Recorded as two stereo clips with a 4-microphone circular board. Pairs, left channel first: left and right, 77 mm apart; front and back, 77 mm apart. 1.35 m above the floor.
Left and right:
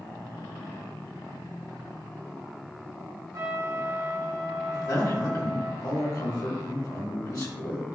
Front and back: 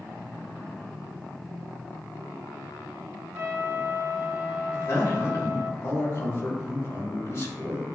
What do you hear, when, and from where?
3.3 s a trumpet: 130° right, 1.7 m
4.7 s a man speaking: 55° left, 3 m